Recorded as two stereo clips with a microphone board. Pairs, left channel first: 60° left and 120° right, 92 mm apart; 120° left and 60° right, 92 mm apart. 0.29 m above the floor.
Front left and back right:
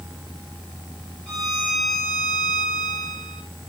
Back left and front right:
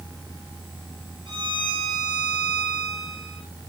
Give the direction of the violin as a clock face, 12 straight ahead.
1 o'clock.